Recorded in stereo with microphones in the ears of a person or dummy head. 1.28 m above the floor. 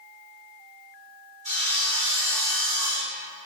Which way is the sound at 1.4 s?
50° right (ahead or behind).